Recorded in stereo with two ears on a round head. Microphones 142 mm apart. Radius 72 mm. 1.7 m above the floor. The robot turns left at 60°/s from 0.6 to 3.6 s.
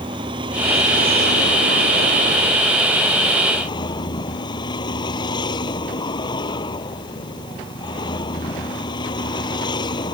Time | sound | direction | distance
0.0 | a vehicle | 30° right | ?